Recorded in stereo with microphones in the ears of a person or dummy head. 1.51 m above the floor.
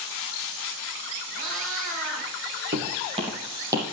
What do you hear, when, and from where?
1.3 s a cat meowing: 40° right (ahead or behind), 5 m
2.7 s footsteps: 40° right (ahead or behind), 4 m; by 3.8 s 15° right (ahead or behind), 3.5 m